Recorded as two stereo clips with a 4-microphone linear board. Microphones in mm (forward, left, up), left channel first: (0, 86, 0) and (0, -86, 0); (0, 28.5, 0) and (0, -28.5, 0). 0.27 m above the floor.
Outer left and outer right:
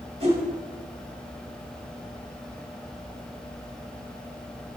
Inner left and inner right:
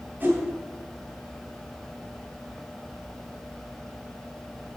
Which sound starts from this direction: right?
A whoosh, at 0.2 s.